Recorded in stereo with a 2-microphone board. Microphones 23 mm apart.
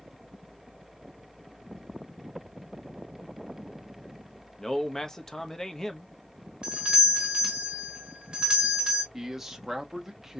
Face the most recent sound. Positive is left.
turn(degrees=-15)  # may be behind; listen again after turning